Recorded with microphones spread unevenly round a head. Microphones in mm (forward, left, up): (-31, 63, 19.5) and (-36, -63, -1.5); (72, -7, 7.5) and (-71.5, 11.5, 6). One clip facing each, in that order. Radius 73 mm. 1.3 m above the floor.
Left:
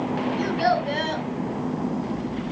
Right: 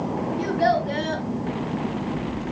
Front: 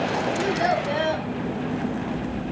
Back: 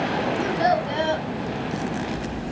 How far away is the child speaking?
About 6 m.